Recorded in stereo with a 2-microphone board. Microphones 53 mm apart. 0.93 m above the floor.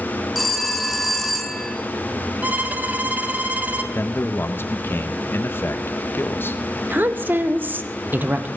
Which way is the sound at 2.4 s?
30° right (ahead or behind).